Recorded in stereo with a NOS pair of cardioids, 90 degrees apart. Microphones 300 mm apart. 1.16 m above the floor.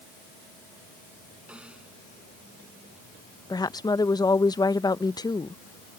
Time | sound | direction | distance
1.5 | a snare drum | 5° right | ?
3.5 | a woman speaking | 15° left | ?